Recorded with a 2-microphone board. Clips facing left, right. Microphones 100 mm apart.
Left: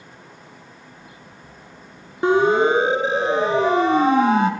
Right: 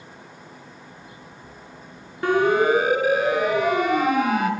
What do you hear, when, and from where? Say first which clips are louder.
2.2 s a siren: left 2 dB; 20° left (ahead or behind), 2.5 m; by 4.5 s 30° left (ahead or behind), 2.5 m